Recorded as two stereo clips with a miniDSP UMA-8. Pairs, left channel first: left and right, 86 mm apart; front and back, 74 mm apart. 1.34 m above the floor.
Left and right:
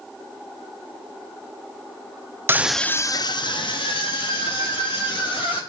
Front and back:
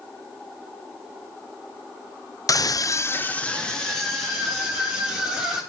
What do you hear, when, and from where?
2.5 s a scream: 30° right, 0.7 m; by 5.6 s 90° left, 3.5 m